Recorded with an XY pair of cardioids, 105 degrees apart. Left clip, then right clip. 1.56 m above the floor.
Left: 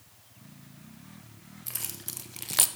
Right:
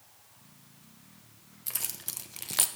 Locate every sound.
1.7 s keys jangling: 15° right, 1.5 m; by 2.7 s 40° left, 0.5 m